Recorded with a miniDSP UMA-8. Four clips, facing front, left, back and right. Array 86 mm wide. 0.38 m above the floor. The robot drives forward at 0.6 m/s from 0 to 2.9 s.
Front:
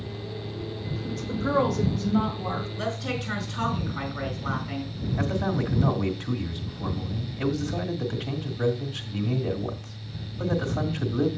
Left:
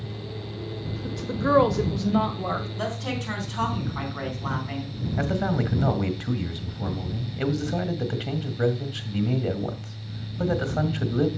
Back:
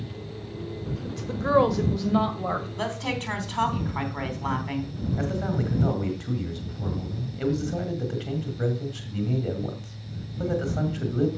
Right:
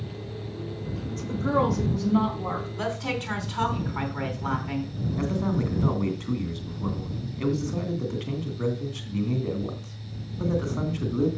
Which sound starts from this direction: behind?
A woman speaking, at 2.8 s.